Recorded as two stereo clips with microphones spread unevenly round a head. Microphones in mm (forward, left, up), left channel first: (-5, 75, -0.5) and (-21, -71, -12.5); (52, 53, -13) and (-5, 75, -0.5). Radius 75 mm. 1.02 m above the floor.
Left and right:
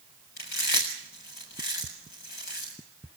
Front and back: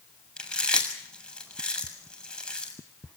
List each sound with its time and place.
0.4 s chewing: 55° left, 7 m